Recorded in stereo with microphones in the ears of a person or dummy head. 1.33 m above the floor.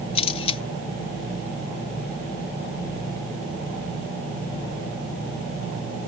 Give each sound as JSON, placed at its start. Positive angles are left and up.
{"t": 0.1, "sound": "a camera shutter", "side_deg": 30}